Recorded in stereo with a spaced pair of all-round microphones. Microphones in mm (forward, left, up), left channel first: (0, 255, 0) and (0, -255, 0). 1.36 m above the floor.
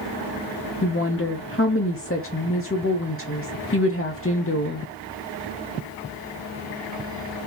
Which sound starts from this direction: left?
A woman speaking, at 0.8 s.